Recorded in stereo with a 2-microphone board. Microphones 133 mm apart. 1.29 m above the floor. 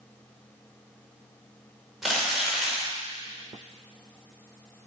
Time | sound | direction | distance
2.0 | crumpling | centre (ahead or behind) | 2.5 m